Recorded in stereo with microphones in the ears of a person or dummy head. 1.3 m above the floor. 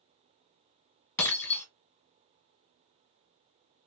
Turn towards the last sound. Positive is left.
turn(degrees=10)  # may be behind; listen again after turning